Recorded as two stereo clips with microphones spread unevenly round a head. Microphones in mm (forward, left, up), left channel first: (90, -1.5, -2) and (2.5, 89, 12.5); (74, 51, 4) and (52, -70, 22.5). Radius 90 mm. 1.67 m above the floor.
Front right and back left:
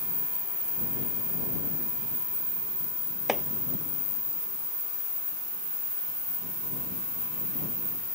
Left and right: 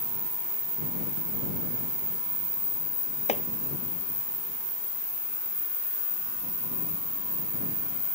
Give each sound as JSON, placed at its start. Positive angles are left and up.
{"t": 3.3, "sound": "chopping", "azimuth_deg": 45}